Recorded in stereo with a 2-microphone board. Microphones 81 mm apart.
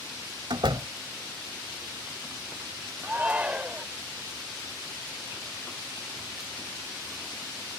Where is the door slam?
75° right (ahead or behind).